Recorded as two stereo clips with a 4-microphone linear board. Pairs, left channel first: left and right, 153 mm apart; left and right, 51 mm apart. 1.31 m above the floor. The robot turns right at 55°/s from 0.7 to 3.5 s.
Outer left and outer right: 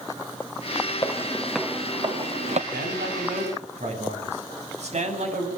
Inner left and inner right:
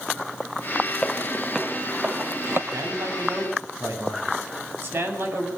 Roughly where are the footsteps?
Left.